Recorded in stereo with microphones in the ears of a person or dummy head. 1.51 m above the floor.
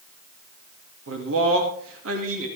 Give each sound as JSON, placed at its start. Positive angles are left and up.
{"t": 1.1, "sound": "a man speaking", "side_deg": -75, "distance_m": 3.0}